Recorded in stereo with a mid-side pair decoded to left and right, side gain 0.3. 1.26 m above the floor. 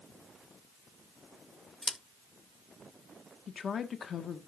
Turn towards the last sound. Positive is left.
turn(degrees=70)